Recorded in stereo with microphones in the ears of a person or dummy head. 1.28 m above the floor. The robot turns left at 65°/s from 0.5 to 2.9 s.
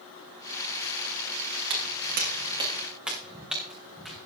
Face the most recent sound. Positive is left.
turn(degrees=5)  # may be behind; listen again after turning